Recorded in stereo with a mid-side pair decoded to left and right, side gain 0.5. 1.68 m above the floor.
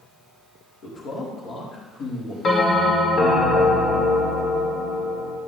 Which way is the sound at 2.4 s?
55° left.